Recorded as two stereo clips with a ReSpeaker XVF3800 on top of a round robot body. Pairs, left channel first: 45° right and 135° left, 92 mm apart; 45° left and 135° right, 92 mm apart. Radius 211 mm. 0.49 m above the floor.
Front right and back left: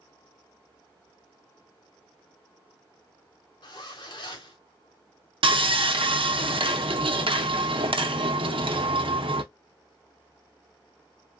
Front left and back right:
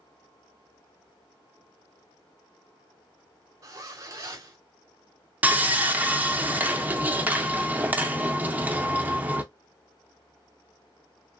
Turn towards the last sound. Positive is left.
turn(degrees=155)